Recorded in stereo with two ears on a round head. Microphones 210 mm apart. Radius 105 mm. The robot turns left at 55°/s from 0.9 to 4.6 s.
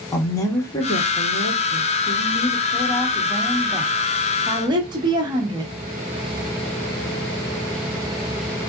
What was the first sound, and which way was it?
A woman speaking, 15° left (ahead or behind).